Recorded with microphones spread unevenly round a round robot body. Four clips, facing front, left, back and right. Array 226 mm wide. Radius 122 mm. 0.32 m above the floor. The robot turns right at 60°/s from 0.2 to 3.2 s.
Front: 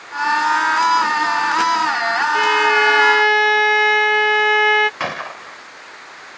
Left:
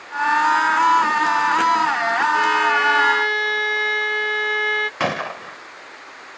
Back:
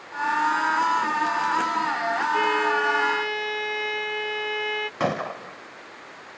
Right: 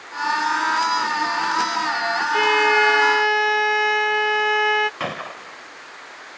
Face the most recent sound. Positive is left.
turn(degrees=150)